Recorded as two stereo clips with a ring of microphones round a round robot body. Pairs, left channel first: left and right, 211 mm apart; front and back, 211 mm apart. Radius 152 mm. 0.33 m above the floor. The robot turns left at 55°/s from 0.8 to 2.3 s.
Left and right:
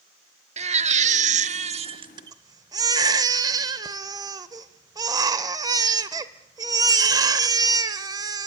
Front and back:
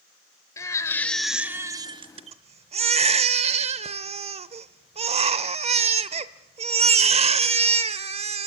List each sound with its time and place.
0.6 s a baby crying: 65° right, 0.7 m; by 8.5 s 150° right, 0.7 m